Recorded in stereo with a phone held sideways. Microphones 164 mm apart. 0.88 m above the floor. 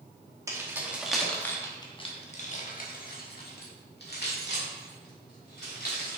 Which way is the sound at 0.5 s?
20° right (ahead or behind).